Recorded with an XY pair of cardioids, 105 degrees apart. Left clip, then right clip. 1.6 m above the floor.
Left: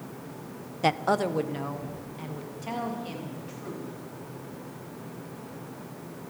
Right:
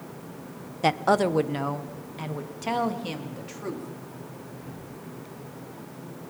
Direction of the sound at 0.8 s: 5° right.